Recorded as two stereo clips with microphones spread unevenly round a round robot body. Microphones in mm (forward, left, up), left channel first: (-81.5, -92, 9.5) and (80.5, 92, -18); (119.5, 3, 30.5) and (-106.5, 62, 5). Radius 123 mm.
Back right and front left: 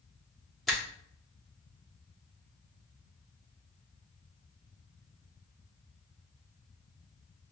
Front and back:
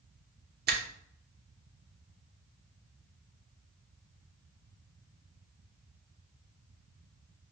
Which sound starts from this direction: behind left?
A finger snap, at 0.7 s.